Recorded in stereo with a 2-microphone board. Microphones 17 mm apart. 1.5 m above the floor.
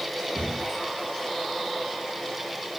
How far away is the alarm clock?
No alarm clock in this recording.